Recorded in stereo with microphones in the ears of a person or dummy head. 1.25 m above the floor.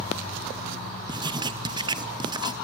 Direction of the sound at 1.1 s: 20° right (ahead or behind).